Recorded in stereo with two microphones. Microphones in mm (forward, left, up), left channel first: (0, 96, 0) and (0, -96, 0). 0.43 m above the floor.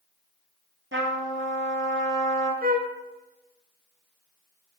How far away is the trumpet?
About 1.8 m.